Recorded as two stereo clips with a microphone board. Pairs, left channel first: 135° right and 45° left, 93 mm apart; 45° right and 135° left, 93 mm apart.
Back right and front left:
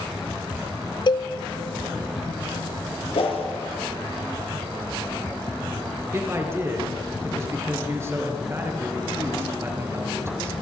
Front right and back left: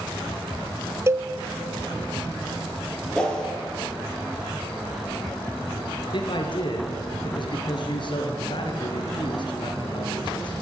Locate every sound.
1.1 s a cowbell: 165° right, 0.6 m
3.1 s a whoosh: 125° right, 4.5 m
6.1 s a man speaking: 15° right, 3.5 m